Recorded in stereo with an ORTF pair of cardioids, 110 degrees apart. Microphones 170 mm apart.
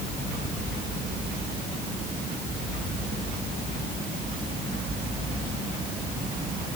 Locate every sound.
Only background noise.